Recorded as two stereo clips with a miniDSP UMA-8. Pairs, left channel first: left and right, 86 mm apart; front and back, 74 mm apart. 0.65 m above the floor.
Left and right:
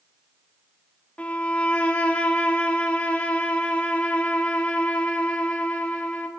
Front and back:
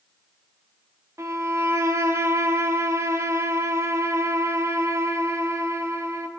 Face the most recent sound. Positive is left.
turn(degrees=155)